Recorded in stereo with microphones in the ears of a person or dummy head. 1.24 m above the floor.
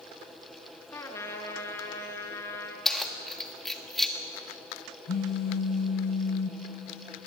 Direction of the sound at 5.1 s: 45° left (ahead or behind).